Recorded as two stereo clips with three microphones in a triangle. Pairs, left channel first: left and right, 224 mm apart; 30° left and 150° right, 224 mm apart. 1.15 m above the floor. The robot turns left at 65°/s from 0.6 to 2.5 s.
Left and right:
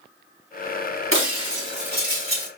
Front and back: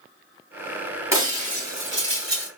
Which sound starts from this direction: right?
Breaking glass, at 1.1 s.